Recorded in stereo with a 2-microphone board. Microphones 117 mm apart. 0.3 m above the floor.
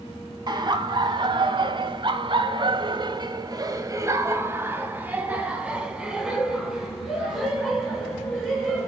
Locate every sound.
0.5 s laughter: 40° right (ahead or behind), 1.9 m; by 8.9 s 5° left (ahead or behind), 3.5 m